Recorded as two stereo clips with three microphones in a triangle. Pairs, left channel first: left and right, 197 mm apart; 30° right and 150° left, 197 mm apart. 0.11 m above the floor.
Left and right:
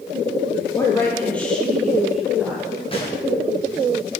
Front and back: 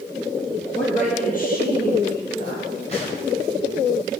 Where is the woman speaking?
15° left, 2.5 m; by 2.7 s 5° right, 3 m.